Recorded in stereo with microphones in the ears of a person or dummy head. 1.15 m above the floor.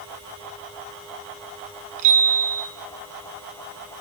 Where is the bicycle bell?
40° right (ahead or behind), 8.5 m.